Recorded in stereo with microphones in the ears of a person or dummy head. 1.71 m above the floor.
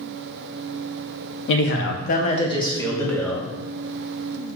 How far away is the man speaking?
About 0.5 m.